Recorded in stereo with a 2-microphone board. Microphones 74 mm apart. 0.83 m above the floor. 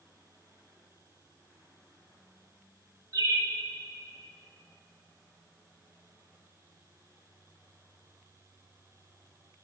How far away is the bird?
About 2 m.